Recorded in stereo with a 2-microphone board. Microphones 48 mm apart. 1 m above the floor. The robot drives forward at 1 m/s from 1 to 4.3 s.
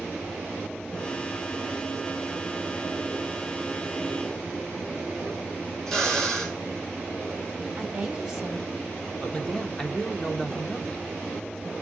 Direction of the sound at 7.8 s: 10° right (ahead or behind).